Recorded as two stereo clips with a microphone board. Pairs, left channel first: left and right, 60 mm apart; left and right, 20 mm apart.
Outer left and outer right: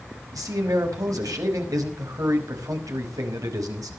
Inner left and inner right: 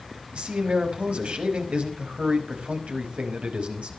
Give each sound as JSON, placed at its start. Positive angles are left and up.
{"t": 0.3, "sound": "a man speaking", "side_deg": -70, "distance_m": 5.5}